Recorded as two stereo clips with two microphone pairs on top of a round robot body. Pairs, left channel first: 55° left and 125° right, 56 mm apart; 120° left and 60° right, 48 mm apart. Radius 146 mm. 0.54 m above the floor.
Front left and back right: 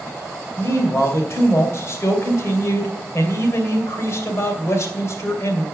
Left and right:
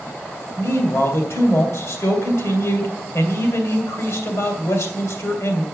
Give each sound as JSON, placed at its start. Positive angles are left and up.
{"t": 0.6, "sound": "a man speaking", "azimuth_deg": 100, "distance_m": 2.5}